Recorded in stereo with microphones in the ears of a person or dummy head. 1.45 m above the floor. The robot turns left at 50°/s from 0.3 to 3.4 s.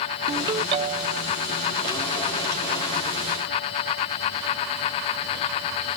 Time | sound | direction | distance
0.3 | a ringtone | 30° right | 0.8 m